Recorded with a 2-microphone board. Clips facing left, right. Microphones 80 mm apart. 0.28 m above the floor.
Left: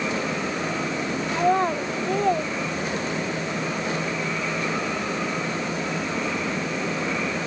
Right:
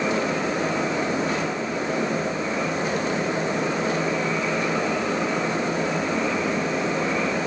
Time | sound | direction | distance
1.3 | a child speaking | 80° left | ?